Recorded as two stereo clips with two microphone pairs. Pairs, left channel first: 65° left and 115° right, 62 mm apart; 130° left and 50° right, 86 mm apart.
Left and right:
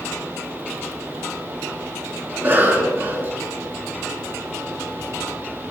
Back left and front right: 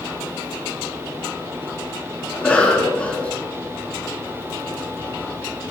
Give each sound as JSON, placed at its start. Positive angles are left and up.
{"t": 2.3, "sound": "a cough", "azimuth_deg": -165, "distance_m": 2.0}